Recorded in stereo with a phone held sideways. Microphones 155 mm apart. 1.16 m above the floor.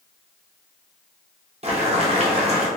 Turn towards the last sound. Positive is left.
turn(degrees=-45)  # may be behind; listen again after turning